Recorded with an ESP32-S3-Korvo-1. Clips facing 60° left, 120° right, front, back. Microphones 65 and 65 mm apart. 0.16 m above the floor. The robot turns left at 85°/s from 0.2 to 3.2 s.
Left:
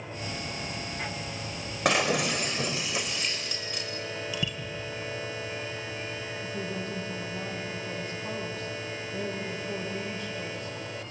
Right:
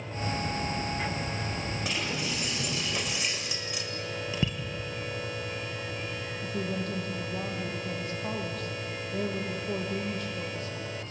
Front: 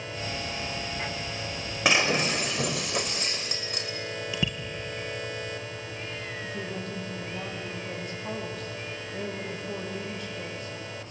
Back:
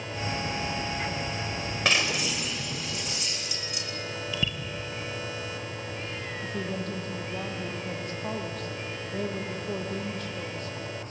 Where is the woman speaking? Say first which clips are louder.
Right 4 dB, back 4 dB; 150° right, 6 m.